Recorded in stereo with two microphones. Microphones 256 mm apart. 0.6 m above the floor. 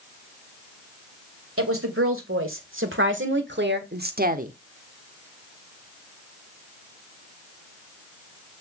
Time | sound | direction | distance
1.6 | a woman speaking | 55° right (ahead or behind) | 2.5 m